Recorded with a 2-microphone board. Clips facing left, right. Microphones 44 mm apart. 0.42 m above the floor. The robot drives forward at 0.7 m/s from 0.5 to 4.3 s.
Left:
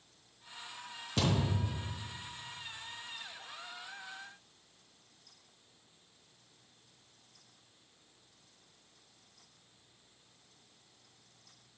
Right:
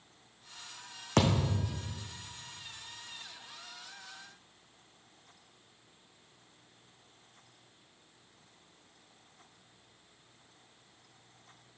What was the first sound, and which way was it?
A thud, 70° right (ahead or behind).